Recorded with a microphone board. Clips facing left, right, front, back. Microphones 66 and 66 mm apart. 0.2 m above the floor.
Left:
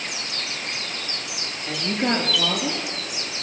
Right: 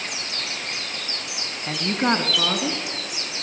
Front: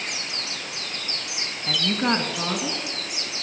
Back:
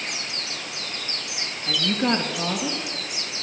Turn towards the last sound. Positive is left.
turn(degrees=-65)